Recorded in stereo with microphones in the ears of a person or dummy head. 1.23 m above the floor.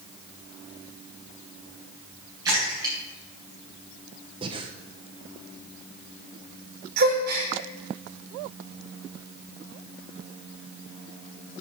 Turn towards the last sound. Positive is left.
turn(degrees=-60)  # may be behind; listen again after turning